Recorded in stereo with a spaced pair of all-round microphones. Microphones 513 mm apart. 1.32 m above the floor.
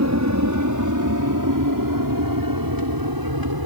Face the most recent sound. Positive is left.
turn(degrees=-45)  # may be behind; listen again after turning